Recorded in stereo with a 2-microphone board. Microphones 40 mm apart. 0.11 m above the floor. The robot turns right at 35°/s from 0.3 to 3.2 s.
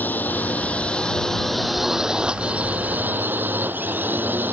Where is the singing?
No singing in this recording.